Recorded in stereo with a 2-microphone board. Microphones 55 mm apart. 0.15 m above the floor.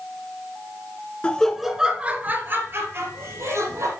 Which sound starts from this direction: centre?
Laughter, at 1.2 s.